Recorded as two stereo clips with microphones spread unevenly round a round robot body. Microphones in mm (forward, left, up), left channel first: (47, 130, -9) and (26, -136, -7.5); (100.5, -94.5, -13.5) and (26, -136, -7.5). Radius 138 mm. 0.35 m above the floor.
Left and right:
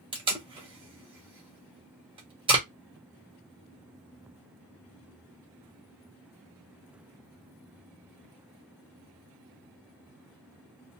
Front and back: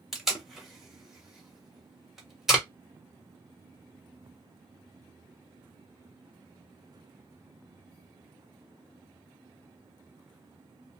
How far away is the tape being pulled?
About 1.2 m.